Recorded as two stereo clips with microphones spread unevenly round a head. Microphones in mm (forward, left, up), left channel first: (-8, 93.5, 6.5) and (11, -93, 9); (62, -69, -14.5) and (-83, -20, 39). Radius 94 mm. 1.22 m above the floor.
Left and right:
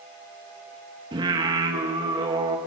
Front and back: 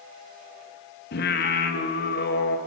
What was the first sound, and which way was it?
Singing, 15° right.